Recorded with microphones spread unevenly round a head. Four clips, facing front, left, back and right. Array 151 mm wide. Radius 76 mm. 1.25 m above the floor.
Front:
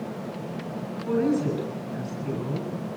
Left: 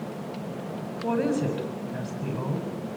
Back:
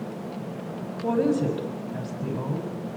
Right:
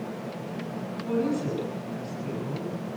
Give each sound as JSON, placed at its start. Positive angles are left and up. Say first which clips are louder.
{"t": 1.0, "sound": "a woman speaking", "louder": "left 2 dB, back 1 dB", "azimuth_deg": 150, "distance_m": 7.0}